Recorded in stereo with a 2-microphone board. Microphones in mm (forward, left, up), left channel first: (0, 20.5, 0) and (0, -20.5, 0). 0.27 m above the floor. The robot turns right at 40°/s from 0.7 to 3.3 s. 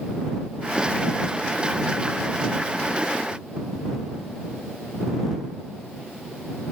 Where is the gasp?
No gasp in this recording.